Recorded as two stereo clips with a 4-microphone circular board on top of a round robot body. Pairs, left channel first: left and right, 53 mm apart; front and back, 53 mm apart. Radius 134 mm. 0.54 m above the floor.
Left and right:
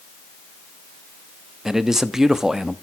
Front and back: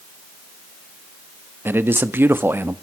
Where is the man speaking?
170° right, 1.3 m.